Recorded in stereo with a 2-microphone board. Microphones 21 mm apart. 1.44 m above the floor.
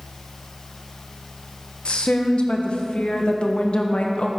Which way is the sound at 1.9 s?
70° left (ahead or behind).